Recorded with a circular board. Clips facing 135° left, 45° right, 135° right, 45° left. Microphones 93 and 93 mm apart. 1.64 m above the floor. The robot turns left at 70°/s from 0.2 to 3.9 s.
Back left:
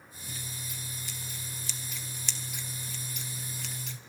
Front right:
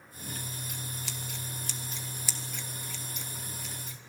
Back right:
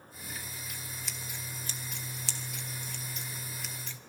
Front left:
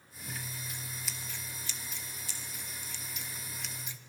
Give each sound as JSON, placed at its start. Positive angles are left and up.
{"t": 0.3, "sound": "scissors", "azimuth_deg": 15, "distance_m": 1.9}